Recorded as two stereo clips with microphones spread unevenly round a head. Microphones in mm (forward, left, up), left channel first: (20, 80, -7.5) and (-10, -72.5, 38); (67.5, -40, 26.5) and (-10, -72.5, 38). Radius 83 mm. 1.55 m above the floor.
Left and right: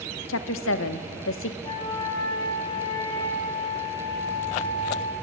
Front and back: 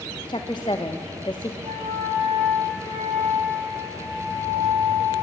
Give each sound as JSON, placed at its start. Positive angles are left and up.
{"t": 0.3, "sound": "a woman speaking", "azimuth_deg": 90, "distance_m": 1.0}
{"t": 1.6, "sound": "a flute", "azimuth_deg": 150, "distance_m": 2.5}